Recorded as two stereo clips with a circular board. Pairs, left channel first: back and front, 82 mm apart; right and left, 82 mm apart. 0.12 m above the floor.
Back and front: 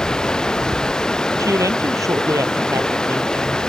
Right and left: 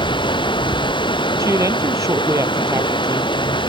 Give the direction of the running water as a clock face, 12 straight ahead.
3 o'clock.